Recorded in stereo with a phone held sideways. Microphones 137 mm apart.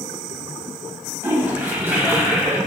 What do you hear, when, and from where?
1.2 s a toilet flushing: 15° right (ahead or behind), 1.8 m